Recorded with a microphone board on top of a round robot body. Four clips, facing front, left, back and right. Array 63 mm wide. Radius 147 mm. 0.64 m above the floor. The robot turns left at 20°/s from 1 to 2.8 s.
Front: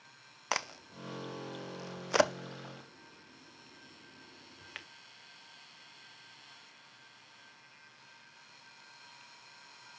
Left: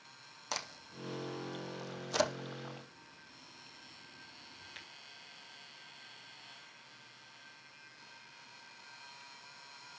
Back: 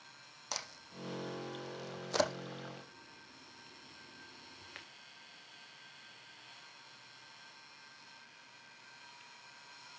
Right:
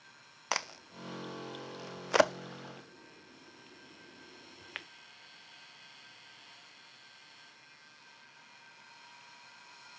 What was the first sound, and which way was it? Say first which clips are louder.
A crack: right 6 dB, front 10 dB; 35° right.